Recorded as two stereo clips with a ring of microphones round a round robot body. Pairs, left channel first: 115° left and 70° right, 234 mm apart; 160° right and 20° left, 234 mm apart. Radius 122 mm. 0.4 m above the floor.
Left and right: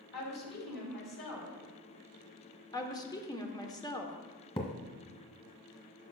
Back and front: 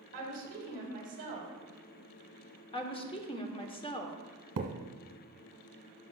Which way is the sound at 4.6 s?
45° left.